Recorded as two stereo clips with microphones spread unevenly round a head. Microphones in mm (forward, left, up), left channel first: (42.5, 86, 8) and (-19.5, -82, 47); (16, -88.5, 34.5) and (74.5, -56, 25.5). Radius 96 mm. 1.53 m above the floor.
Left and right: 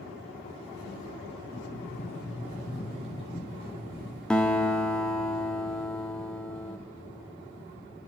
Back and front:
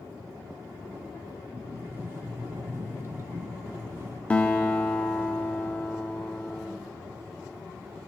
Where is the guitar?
Straight behind, 1.1 m.